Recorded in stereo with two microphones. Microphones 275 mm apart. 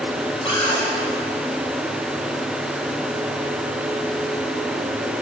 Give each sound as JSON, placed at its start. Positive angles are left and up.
{"t": 0.5, "sound": "a cupboard door", "side_deg": 20, "distance_m": 4.5}